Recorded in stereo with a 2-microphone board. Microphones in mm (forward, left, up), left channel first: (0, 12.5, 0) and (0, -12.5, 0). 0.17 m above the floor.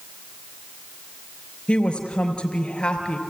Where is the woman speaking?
45° left (ahead or behind), 3.5 m.